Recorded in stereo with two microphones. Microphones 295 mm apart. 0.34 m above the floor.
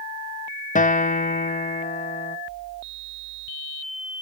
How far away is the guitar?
About 0.5 m.